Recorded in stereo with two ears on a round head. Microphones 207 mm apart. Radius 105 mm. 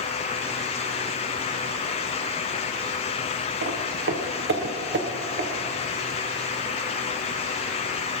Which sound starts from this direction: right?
Footsteps, at 3.6 s.